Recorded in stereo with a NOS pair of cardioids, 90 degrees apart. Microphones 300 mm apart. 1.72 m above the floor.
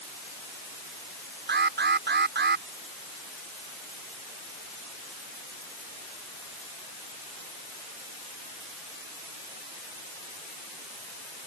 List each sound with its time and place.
1.5 s an alarm: 35° right